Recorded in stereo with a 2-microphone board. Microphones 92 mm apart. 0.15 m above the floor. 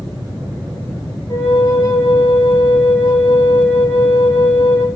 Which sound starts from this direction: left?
A flute, at 1.3 s.